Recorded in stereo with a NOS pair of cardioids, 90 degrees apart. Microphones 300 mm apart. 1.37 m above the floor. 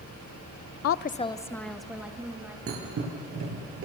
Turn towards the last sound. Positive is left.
turn(degrees=-50)